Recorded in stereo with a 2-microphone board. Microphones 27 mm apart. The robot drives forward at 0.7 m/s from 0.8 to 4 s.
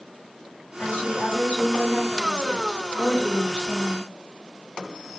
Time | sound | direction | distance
0.8 | a woman speaking | 70° left (ahead or behind) | 2.5 m